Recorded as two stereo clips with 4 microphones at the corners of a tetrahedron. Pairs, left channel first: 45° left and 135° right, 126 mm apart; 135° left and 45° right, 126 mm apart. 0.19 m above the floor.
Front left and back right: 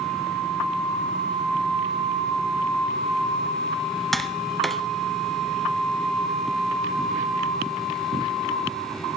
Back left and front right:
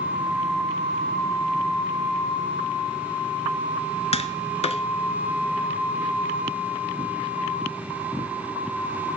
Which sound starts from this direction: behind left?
Tapping, at 4.1 s.